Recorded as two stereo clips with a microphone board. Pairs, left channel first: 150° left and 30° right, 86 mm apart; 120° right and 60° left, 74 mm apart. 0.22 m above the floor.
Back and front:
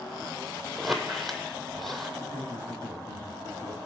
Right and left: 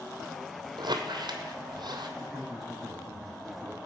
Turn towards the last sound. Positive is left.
turn(degrees=145)